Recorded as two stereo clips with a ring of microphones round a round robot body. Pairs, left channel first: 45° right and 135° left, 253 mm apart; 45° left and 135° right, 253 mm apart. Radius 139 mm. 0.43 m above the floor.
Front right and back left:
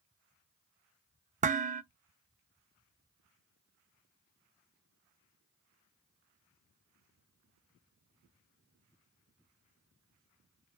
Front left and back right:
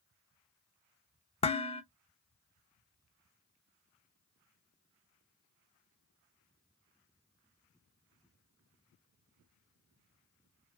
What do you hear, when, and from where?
1.4 s dishes clattering: 95° left, 0.5 m